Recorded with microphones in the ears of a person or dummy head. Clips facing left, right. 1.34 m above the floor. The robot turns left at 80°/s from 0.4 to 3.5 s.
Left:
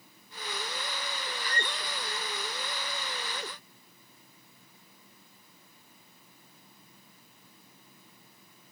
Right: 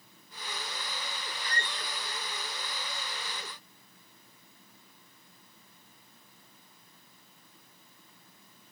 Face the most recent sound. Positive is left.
turn(degrees=170)